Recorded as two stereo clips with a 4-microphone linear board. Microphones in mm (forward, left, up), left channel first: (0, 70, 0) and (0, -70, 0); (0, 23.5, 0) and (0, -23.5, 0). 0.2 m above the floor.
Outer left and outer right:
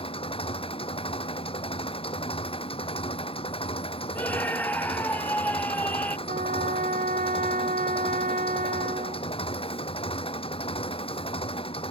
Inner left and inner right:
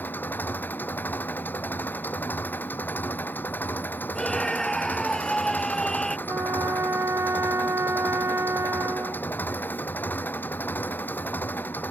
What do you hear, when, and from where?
0.0 s an engine running: 40° left (ahead or behind)
4.2 s a scream: 10° left (ahead or behind)
6.3 s a trumpet: 70° right (ahead or behind)